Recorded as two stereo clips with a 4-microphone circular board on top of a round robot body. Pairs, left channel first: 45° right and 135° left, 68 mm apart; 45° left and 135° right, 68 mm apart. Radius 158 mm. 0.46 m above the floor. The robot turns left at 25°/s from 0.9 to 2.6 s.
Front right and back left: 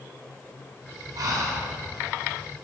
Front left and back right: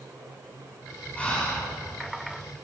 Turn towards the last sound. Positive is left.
turn(degrees=80)